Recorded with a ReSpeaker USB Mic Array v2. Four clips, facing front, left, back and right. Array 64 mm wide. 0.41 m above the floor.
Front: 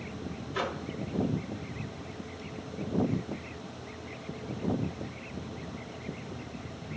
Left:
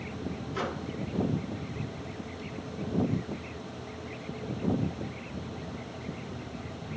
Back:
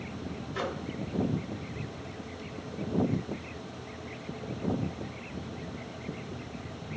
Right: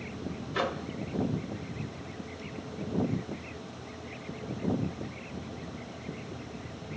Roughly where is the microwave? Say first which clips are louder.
Right 4 dB, front 1 dB; right.